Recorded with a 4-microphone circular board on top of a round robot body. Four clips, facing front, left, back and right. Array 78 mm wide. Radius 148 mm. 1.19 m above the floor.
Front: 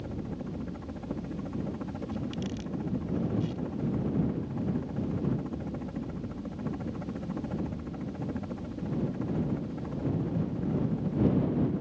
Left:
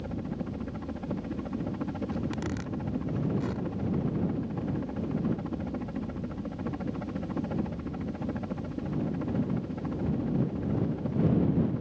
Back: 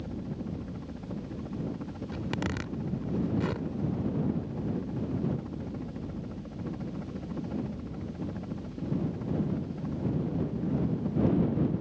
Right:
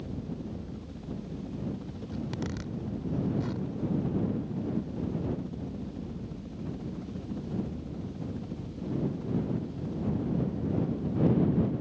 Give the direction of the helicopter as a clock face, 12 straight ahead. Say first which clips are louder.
Left 3 dB, even; 10 o'clock.